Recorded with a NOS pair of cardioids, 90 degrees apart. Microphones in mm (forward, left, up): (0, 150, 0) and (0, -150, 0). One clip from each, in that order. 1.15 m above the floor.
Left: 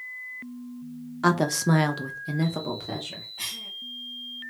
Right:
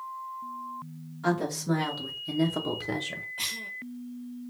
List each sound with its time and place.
1.2 s a woman speaking: 65° left, 0.8 m; by 3.3 s 25° right, 0.9 m
3.4 s a cough: 20° right, 0.7 m